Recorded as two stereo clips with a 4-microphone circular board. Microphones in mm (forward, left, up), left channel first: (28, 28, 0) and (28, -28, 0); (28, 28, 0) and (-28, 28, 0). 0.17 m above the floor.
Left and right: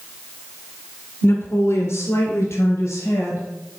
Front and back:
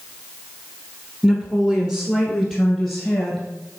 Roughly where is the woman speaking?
Left.